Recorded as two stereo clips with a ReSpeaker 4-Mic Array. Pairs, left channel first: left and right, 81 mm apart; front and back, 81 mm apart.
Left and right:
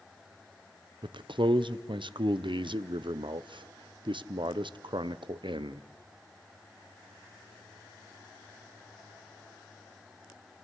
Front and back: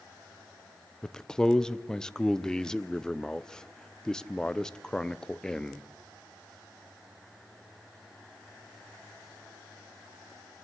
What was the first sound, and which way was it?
A man speaking, 80° right.